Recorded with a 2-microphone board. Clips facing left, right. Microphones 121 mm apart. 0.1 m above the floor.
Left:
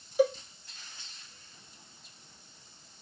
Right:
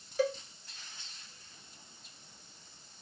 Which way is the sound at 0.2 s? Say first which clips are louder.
Left 5 dB; 15° left (ahead or behind).